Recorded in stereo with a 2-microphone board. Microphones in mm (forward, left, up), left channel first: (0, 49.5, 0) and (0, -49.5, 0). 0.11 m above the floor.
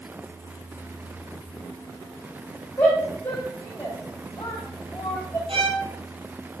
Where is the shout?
25° left (ahead or behind), 6 m.